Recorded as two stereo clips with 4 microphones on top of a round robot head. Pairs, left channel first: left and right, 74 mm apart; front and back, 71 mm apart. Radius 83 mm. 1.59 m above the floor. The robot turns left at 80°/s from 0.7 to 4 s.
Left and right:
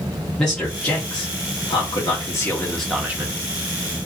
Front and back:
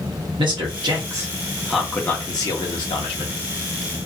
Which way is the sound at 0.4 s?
170° left.